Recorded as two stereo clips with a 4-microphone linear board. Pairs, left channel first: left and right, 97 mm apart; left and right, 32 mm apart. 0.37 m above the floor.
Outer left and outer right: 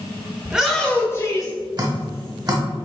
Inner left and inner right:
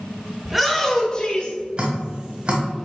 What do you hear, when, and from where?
0.4 s a shout: 15° right (ahead or behind), 1.0 m; by 1.6 s 40° left (ahead or behind), 1.5 m
1.8 s dripping: 45° right (ahead or behind), 1.5 m